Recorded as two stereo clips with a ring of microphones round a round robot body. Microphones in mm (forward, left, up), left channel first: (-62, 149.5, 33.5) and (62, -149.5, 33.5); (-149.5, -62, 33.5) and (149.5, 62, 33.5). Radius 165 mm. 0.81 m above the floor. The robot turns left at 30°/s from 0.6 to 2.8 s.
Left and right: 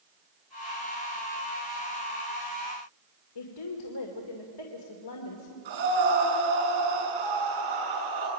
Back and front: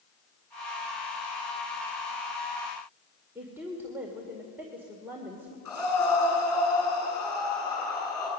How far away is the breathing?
About 9 m.